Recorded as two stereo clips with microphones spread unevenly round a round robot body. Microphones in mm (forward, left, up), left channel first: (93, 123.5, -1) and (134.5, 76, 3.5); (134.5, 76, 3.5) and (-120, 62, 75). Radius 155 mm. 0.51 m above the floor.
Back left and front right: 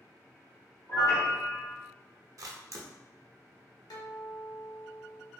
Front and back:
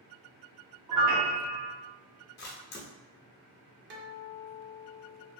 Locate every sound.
0.9 s a piano: 175° left, 0.8 m
2.4 s a camera shutter: 25° right, 0.7 m
3.9 s a guitar: 130° left, 0.7 m